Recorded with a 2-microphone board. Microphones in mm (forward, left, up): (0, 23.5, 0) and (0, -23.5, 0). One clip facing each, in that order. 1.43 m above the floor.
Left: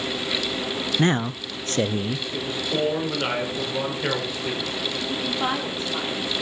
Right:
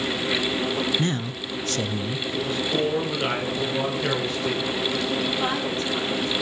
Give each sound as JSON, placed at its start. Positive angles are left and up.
{"t": 1.0, "sound": "a man speaking", "side_deg": 35, "distance_m": 0.6}
{"t": 2.3, "sound": "a man speaking", "side_deg": 10, "distance_m": 5.0}
{"t": 5.1, "sound": "a woman speaking", "side_deg": 10, "distance_m": 3.0}